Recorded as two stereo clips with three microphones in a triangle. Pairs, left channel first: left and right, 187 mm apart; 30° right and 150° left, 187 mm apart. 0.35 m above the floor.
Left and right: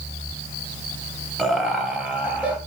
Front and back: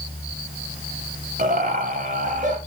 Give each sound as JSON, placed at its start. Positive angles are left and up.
{"t": 1.4, "sound": "laughter", "azimuth_deg": 180, "distance_m": 2.5}